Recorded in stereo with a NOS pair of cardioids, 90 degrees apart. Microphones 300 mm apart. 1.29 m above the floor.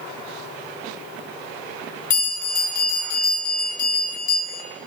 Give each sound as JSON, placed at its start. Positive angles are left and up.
{"t": 2.1, "sound": "a bell", "azimuth_deg": 70, "distance_m": 1.2}